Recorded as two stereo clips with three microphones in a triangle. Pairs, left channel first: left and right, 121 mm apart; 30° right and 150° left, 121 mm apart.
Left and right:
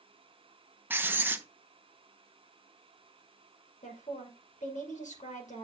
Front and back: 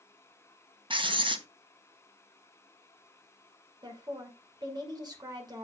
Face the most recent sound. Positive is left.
turn(degrees=95)